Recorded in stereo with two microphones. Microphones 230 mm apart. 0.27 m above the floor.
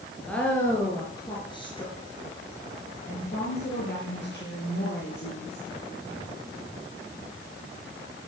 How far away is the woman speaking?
About 4 m.